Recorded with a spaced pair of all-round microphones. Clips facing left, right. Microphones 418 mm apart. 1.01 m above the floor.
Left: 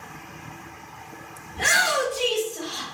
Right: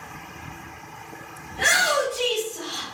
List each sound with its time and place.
1.5 s a shout: 75° right (ahead or behind), 1.2 m; by 2.8 s 20° right (ahead or behind), 1.8 m